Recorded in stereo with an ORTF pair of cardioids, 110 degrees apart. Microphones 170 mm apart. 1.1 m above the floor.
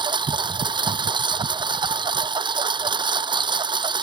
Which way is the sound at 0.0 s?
30° right.